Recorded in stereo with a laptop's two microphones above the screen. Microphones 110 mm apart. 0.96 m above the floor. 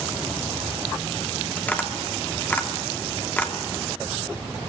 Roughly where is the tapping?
Centre.